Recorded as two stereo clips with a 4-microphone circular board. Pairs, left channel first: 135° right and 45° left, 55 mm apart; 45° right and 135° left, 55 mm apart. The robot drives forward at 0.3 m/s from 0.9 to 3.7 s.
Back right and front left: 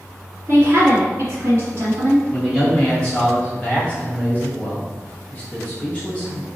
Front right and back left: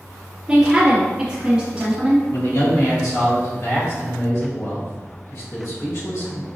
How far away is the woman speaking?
About 1.7 m.